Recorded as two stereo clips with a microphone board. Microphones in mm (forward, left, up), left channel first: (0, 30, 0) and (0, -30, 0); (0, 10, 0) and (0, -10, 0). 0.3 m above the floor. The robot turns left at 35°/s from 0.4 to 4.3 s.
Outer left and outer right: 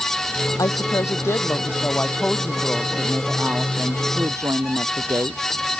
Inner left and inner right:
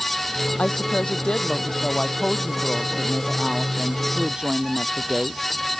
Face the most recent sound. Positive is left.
turn(degrees=-55)